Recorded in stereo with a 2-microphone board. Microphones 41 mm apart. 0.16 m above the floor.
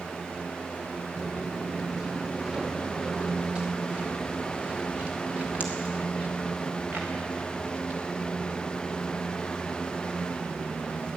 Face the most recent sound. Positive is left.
turn(degrees=-45)  # may be behind; listen again after turning